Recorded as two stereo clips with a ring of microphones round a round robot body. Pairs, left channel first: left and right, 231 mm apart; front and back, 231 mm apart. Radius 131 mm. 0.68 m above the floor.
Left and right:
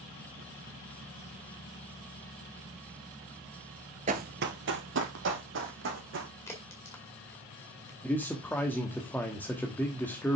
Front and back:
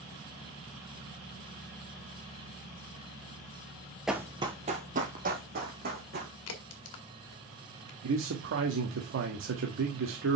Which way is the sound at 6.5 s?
10° left.